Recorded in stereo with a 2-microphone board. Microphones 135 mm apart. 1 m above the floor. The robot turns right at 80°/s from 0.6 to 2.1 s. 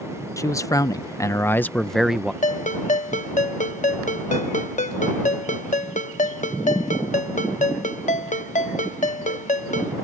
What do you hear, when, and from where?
0.4 s a man speaking: 20° left (ahead or behind); by 2.3 s 5° right (ahead or behind)
2.4 s a ringtone: 65° left (ahead or behind)